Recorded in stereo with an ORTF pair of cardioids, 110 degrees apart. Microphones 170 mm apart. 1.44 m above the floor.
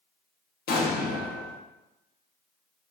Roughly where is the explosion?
Ahead left.